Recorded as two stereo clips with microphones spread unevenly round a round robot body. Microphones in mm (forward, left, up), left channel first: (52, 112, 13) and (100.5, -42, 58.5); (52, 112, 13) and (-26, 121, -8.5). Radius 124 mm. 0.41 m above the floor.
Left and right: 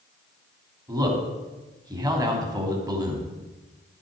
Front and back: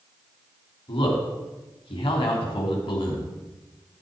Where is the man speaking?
Straight ahead, 3 m.